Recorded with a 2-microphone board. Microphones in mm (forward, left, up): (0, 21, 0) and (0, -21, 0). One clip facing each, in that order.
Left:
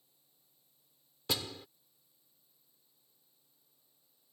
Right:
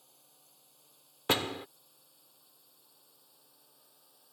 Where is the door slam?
50° right (ahead or behind).